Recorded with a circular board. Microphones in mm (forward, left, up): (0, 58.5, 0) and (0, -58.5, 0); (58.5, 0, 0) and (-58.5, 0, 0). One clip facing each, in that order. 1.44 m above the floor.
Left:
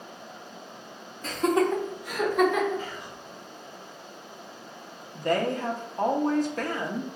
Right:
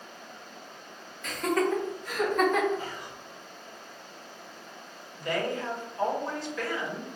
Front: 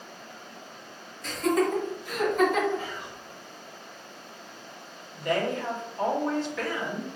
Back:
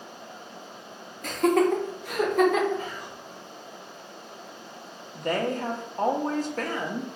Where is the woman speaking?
135° left, 0.8 m.